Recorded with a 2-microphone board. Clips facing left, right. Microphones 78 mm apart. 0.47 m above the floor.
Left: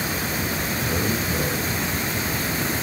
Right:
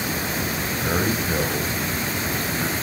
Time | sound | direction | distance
0.8 | a man speaking | 50° right (ahead or behind) | 2.5 m